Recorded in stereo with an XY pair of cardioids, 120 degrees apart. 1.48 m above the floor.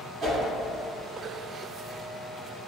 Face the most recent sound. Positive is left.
turn(degrees=-55)